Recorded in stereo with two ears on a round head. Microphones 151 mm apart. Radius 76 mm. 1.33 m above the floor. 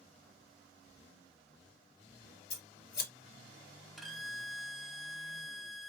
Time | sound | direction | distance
2.5 | scissors | 60° left (ahead or behind) | 1.2 m
4.0 | a violin | centre (ahead or behind) | 0.5 m